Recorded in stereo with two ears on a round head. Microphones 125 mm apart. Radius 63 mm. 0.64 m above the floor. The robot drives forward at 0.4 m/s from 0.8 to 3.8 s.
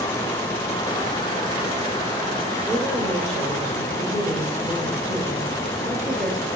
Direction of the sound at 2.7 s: 10° left (ahead or behind).